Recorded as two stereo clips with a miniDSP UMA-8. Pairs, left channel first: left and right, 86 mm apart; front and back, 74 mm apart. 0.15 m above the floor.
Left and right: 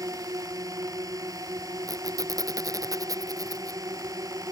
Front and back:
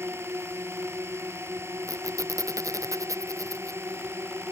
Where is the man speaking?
I don't hear a man speaking.